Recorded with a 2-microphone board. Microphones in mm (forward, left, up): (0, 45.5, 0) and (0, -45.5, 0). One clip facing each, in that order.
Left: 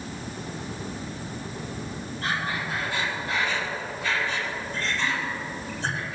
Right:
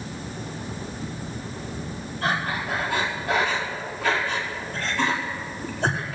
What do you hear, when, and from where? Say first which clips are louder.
2.2 s breathing: right 4 dB; 70° right (ahead or behind), 4.5 m